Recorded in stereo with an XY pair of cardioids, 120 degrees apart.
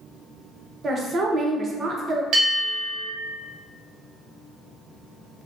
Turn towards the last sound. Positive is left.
turn(degrees=-65)